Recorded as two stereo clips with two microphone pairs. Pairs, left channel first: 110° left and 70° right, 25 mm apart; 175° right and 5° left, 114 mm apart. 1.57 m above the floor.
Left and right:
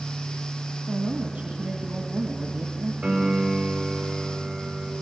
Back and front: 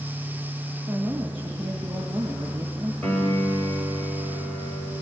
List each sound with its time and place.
0.9 s a woman speaking: 65° right, 2 m
3.0 s a piano: 100° right, 4.5 m